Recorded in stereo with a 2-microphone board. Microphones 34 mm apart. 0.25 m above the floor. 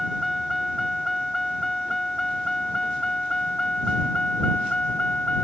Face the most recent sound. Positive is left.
turn(degrees=35)  # may be behind; listen again after turning